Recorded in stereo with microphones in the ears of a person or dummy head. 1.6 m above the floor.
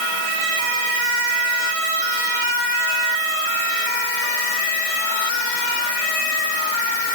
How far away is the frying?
No frying in this recording.